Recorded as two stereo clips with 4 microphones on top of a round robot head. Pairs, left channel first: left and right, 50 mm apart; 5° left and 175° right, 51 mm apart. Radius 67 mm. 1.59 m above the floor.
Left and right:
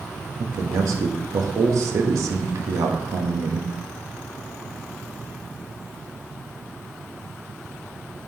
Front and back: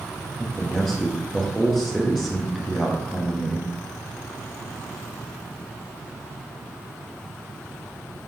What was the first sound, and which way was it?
A man speaking, 80° right.